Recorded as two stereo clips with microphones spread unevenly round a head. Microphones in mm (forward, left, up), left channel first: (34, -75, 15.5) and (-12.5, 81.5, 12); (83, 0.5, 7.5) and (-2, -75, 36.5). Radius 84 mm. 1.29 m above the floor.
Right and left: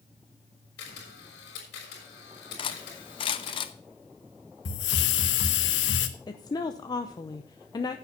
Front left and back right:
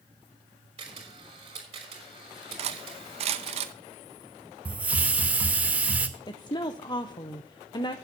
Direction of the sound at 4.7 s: 65° right.